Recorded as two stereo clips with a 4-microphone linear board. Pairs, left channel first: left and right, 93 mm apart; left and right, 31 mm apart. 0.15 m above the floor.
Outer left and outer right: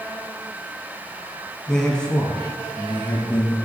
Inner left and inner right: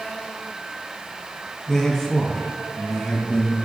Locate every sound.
1.7 s a man speaking: 5° left (ahead or behind), 1.6 m; by 3.6 s 25° left (ahead or behind), 2 m